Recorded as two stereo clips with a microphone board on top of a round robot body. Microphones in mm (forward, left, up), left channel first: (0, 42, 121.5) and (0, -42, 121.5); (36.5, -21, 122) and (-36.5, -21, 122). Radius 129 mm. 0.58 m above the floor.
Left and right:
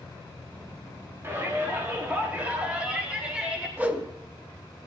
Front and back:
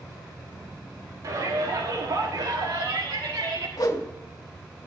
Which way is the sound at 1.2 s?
150° right.